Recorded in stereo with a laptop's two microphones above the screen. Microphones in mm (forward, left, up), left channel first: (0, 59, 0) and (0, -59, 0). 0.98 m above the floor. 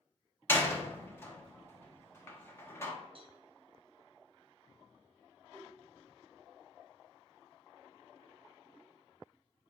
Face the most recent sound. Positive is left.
turn(degrees=35)  # may be behind; listen again after turning